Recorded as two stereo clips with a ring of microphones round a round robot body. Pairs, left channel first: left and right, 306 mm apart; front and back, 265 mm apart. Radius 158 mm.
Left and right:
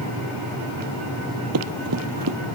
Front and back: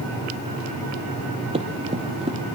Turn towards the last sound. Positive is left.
turn(degrees=-115)